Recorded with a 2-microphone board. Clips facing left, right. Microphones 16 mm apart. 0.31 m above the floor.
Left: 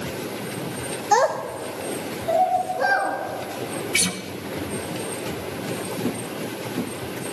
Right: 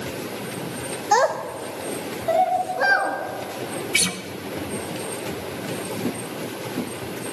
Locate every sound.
1.1 s a child speaking: 10° right (ahead or behind), 0.5 m; by 3.1 s 80° right, 2 m
3.9 s a guitar: 10° right (ahead or behind), 1.0 m